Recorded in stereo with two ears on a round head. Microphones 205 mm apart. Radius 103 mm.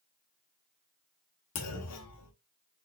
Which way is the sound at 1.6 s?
80° left.